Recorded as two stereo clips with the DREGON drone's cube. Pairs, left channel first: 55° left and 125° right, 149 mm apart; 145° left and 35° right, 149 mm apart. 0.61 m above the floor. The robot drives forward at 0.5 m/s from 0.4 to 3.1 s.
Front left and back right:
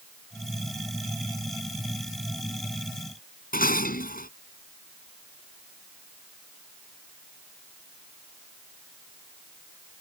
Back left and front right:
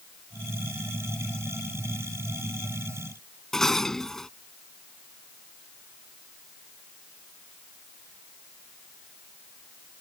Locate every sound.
3.5 s dishes clattering: 60° left